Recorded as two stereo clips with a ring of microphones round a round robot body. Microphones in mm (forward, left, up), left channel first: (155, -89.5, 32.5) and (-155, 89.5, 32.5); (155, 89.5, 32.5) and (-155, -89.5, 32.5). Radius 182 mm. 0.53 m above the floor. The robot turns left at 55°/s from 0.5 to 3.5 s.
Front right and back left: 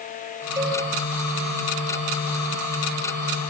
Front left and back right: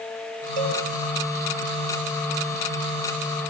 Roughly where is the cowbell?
Behind right.